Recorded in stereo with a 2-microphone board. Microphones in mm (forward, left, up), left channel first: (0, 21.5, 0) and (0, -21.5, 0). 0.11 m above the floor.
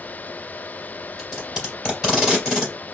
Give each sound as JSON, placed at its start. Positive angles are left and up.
{"t": 1.2, "sound": "tape being pulled", "side_deg": -15, "distance_m": 2.5}